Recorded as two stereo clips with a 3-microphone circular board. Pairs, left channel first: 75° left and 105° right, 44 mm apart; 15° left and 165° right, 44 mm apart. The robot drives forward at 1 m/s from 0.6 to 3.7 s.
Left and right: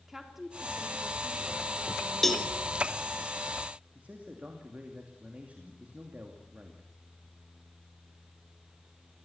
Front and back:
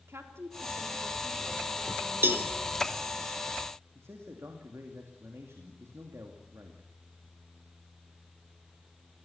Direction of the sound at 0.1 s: 175° left.